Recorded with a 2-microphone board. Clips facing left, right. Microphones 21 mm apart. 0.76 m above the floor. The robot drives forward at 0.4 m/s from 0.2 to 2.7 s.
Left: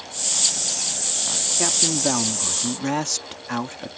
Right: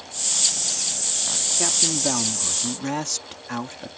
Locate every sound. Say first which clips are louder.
1.6 s a man speaking: left 2 dB; 10° left (ahead or behind); by 3.9 s 15° left (ahead or behind)